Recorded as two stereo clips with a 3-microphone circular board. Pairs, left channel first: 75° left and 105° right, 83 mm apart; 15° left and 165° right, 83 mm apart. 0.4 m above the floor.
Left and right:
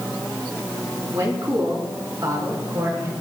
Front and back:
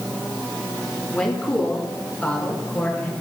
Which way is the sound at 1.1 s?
55° right.